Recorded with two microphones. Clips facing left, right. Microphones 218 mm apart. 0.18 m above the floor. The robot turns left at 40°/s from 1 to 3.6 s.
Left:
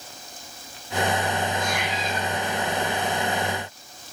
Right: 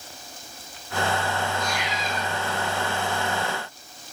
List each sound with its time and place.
1.5 s a cat meowing: 130° left, 6 m; by 2.3 s 100° left, 6 m